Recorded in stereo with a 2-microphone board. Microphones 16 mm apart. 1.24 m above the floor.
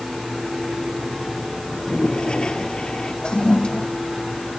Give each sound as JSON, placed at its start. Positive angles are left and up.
{"t": 1.7, "sound": "a toilet flushing", "side_deg": 75}
{"t": 3.2, "sound": "a toilet flushing", "side_deg": 80}